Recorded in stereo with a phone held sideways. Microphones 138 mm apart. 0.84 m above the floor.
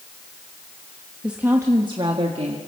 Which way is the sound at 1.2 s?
5° right (ahead or behind).